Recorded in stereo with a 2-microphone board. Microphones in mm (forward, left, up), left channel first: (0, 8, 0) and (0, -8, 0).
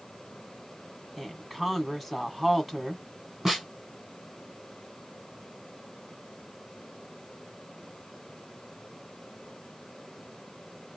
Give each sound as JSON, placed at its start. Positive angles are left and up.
{"t": 1.2, "sound": "a woman speaking", "side_deg": -5, "distance_m": 1.3}
{"t": 3.5, "sound": "a snare drum", "side_deg": -20, "distance_m": 2.5}